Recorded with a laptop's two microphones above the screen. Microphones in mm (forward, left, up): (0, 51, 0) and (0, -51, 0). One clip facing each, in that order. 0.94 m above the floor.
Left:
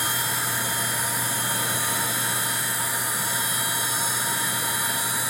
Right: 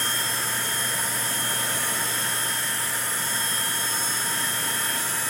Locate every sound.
0.0 s a machine running: 15° left (ahead or behind), 2.5 m